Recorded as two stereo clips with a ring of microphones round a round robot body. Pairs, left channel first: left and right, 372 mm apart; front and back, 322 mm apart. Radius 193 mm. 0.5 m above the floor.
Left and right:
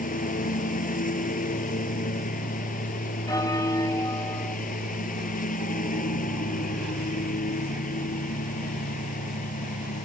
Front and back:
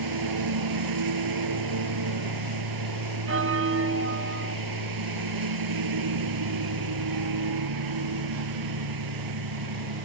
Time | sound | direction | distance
0.0 | a lawn mower | 160° left | ?
3.3 | a bell | 165° left | ?